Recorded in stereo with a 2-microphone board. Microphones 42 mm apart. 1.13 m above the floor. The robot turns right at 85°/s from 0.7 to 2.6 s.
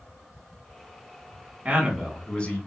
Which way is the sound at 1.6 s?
35° right.